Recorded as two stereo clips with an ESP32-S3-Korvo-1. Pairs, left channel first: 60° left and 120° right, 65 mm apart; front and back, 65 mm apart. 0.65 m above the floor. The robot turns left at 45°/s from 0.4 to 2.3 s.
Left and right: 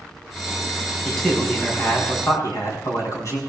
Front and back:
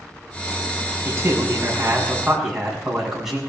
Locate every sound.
1.1 s a man speaking: 155° left, 6 m; by 3.4 s 100° left, 6 m